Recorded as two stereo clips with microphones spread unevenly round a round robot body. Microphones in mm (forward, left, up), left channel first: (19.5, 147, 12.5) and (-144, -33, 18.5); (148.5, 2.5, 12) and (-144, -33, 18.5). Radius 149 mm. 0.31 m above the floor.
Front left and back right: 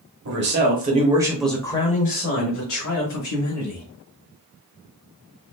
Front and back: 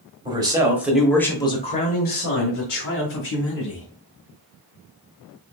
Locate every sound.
0.2 s a man speaking: 100° right, 1.4 m; by 3.9 s 55° left, 2 m